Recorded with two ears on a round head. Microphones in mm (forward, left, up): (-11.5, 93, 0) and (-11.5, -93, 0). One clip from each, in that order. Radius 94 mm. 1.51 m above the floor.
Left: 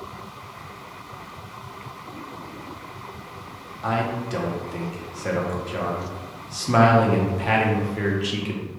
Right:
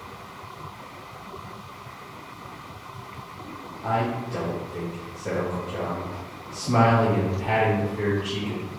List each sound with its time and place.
3.8 s a man speaking: 65° left (ahead or behind), 0.7 m